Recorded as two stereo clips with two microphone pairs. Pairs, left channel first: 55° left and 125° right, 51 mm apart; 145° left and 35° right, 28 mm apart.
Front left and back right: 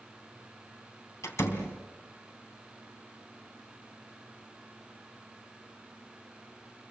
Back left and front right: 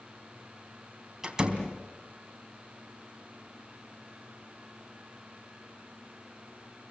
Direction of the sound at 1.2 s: 35° left.